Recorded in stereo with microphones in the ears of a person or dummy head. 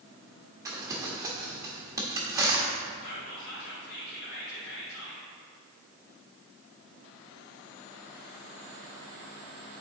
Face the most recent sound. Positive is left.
turn(degrees=50)  # may be behind; listen again after turning